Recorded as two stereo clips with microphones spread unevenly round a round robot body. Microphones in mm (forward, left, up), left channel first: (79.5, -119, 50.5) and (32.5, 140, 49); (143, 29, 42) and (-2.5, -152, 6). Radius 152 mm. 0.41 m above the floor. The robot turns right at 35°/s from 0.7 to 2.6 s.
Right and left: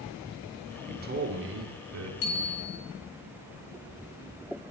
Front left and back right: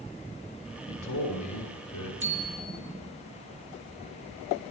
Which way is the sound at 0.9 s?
40° left.